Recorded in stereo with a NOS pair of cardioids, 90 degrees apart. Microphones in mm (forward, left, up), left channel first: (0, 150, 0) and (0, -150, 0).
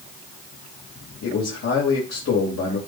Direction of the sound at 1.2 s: 55° left.